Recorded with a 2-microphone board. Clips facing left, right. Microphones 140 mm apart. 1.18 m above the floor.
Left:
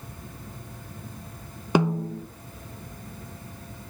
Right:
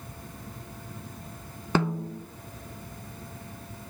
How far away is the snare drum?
About 0.6 m.